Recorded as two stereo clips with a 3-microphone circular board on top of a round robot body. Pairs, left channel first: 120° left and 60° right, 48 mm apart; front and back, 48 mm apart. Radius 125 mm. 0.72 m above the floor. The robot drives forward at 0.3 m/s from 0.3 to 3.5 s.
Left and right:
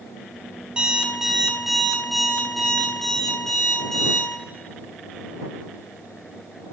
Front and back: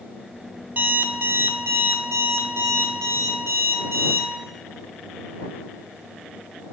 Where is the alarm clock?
130° right, 0.6 m; by 4.3 s 160° right, 1.3 m.